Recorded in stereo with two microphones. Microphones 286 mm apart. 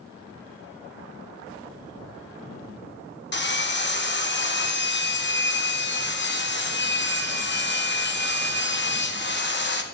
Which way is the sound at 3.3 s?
40° left (ahead or behind).